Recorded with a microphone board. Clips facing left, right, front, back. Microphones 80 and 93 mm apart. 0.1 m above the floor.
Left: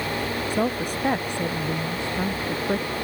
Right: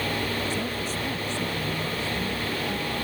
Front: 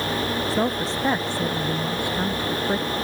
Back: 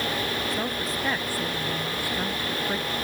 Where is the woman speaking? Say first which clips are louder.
Left 5 dB, front 6 dB; 60° left; by 2.9 s 70° left.